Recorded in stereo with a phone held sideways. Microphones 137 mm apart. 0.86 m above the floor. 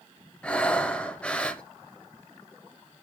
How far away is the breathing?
About 0.6 m.